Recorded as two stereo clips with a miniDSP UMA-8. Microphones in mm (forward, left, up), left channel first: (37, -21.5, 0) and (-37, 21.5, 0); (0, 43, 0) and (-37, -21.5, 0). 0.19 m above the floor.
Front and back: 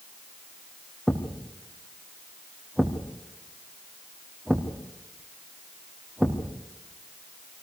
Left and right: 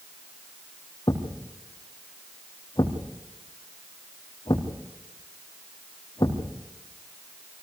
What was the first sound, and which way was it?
A thud, 65° left.